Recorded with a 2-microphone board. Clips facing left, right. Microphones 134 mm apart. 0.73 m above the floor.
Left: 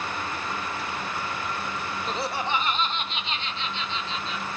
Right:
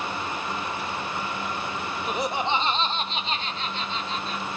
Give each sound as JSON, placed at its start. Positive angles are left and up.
{"t": 2.1, "sound": "laughter", "side_deg": -10, "distance_m": 0.6}